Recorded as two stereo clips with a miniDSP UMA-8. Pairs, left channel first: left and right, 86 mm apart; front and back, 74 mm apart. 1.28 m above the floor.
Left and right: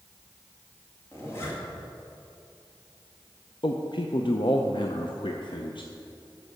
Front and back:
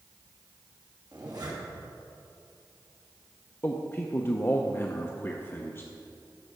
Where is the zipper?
150° left, 2 m.